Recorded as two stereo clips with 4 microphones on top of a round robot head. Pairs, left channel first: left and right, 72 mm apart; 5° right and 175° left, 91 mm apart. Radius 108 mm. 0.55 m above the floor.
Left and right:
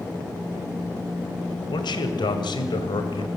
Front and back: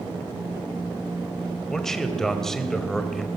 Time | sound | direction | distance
1.7 | a man speaking | 85° left | 3 m